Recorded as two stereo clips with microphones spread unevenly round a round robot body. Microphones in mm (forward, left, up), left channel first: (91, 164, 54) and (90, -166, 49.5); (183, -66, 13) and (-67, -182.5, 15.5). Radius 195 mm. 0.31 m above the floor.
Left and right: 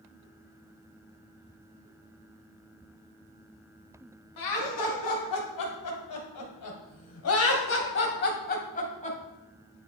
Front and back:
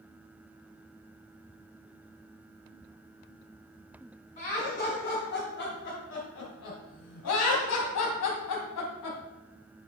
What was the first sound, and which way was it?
Laughter, 95° left.